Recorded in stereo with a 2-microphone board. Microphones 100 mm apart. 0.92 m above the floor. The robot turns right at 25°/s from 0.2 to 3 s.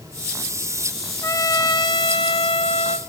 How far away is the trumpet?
About 0.6 m.